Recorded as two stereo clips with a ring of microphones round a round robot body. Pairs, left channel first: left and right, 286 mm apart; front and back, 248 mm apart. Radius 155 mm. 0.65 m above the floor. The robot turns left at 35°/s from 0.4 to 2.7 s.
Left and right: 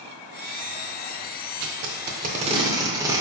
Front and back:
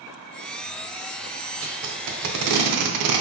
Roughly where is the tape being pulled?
Behind right.